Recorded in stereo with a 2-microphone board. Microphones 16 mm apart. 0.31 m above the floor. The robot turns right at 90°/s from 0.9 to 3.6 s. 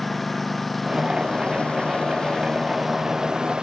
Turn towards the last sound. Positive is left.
turn(degrees=-105)